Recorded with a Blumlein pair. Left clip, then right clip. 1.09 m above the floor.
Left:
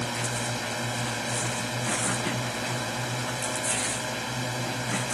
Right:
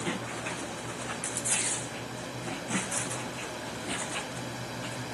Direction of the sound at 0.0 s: 30° left.